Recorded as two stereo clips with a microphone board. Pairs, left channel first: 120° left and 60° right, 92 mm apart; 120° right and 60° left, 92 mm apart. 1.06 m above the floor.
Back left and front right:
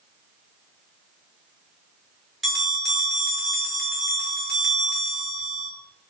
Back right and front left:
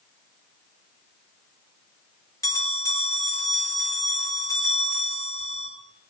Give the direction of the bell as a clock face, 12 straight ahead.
5 o'clock.